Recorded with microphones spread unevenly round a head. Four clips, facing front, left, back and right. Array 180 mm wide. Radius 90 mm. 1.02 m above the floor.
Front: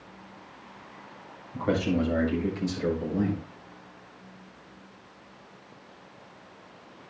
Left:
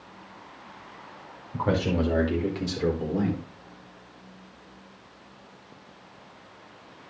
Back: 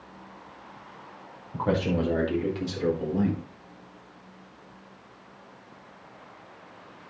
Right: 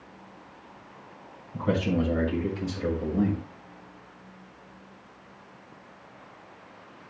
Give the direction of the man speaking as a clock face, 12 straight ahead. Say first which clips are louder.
Left 1 dB, even; 8 o'clock.